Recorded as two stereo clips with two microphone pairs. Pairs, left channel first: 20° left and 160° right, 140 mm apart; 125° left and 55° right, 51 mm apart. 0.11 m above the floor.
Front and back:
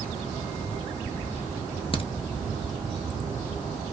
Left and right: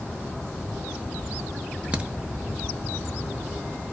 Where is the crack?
Straight ahead, 0.5 m.